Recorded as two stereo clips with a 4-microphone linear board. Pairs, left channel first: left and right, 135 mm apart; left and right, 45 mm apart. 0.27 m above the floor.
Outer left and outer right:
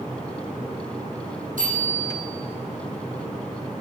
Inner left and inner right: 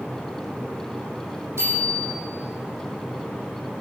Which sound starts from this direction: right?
A bicycle bell, at 1.6 s.